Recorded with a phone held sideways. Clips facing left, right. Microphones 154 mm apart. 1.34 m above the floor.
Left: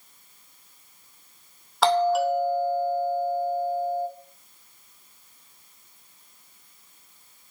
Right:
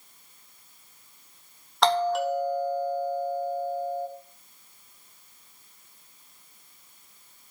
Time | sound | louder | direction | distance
1.8 | a doorbell | left 3 dB | 5° left (ahead or behind) | 3 m